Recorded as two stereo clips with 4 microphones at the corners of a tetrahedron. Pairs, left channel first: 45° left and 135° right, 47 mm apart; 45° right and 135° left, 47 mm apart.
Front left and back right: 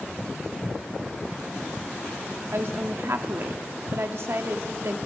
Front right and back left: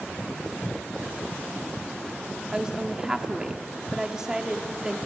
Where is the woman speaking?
150° right, 1.2 m.